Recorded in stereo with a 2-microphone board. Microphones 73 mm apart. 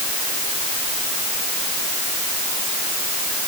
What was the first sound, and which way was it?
Only background noise.